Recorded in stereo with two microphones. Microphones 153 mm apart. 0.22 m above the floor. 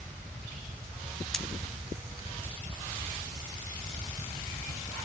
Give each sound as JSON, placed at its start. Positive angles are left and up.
{"t": 1.3, "sound": "cutlery clinking", "side_deg": 5, "distance_m": 0.8}